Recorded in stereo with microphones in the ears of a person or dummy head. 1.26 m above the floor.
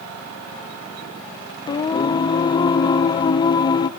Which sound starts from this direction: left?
Singing, at 1.7 s.